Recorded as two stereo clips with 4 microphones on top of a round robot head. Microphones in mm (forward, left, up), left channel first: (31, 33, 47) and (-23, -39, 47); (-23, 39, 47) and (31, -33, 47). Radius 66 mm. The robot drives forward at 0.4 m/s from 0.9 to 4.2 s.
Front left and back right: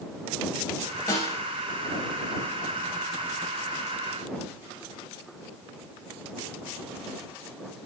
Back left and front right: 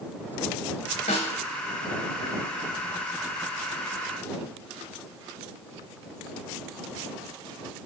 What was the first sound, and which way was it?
A snare drum, 110° left.